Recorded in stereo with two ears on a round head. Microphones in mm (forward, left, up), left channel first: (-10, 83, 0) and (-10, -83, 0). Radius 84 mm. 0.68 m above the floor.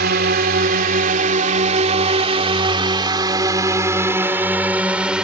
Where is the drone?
55° right (ahead or behind); by 5.2 s 5° right (ahead or behind).